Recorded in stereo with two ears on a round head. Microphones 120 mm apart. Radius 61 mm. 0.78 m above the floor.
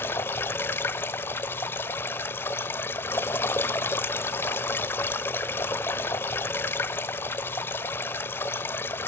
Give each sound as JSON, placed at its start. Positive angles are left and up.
{"t": 0.0, "sound": "running water", "side_deg": 15, "distance_m": 0.7}